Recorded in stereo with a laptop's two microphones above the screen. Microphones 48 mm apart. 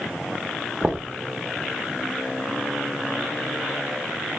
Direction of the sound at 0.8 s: 25° right (ahead or behind).